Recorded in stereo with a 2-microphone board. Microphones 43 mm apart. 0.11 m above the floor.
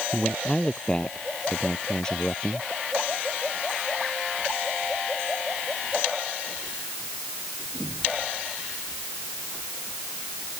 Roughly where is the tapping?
I don't hear tapping.